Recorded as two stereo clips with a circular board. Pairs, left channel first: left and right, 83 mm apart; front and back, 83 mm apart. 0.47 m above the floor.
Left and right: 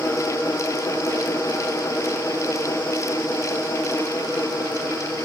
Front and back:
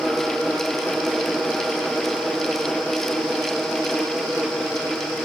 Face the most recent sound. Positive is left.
No sound to turn to.